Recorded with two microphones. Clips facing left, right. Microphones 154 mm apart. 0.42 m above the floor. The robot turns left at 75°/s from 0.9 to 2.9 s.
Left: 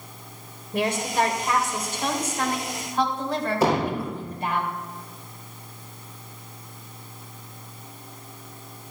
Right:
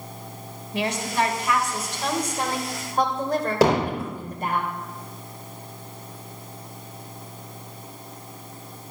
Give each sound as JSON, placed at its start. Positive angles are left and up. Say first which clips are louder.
{"t": 0.7, "sound": "a woman speaking", "louder": "left 1 dB", "azimuth_deg": 85, "distance_m": 2.0}
{"t": 3.6, "sound": "hammering", "louder": "right 3 dB", "side_deg": -80, "distance_m": 4.0}